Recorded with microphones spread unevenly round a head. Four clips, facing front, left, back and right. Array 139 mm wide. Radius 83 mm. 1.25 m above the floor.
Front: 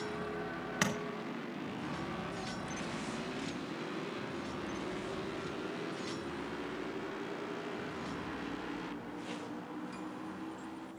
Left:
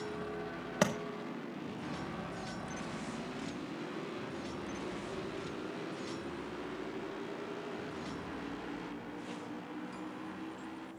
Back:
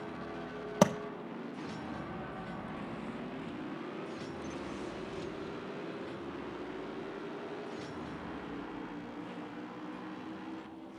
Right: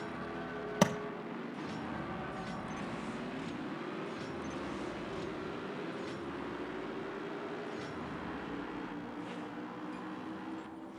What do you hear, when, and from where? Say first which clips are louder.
0.8 s tapping: right 2 dB, back 9 dB; 175° right, 0.5 m